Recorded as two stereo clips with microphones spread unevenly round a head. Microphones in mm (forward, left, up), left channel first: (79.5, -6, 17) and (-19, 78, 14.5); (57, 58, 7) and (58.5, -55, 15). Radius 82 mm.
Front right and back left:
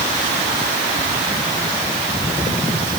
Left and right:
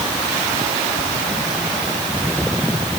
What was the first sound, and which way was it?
Only background noise.